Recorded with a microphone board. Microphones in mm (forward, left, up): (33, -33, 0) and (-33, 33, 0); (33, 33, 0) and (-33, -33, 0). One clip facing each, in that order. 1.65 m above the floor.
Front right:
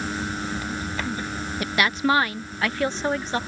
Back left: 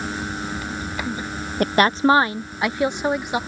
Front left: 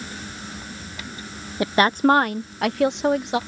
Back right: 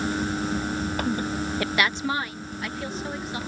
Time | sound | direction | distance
1.6 | a woman speaking | 110° left | ?